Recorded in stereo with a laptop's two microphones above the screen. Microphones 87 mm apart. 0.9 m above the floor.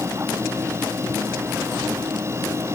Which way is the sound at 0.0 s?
30° right (ahead or behind).